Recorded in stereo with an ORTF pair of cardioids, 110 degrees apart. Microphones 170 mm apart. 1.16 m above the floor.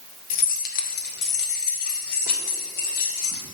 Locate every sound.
0.3 s keys jangling: 60° left, 1.1 m; by 3.4 s 75° left, 3.5 m